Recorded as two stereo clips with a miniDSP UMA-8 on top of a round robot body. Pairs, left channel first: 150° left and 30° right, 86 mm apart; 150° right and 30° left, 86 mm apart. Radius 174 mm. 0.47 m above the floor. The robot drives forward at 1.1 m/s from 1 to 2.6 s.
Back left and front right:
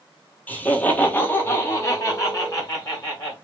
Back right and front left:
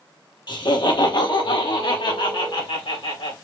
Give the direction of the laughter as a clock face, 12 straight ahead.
5 o'clock.